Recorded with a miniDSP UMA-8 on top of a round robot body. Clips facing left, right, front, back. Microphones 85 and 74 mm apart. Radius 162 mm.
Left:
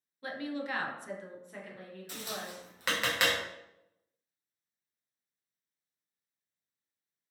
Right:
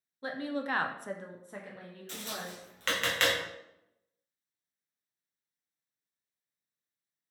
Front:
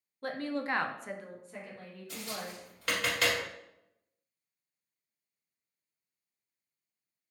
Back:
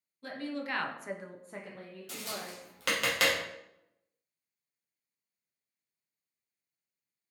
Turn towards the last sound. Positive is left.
turn(degrees=170)